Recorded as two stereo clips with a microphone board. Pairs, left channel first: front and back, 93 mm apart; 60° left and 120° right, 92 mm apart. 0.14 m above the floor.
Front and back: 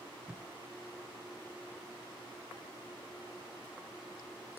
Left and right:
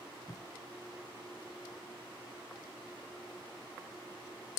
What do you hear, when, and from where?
0.3 s tape being pulled: 100° left, 0.8 m